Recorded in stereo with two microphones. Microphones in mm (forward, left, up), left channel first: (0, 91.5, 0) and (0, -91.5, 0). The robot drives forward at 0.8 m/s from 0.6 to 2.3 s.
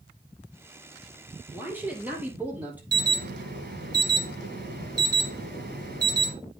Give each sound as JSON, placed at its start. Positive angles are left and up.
{"t": 1.5, "sound": "a man speaking", "side_deg": -10, "distance_m": 3.5}
{"t": 2.9, "sound": "an alarm", "side_deg": -60, "distance_m": 2.0}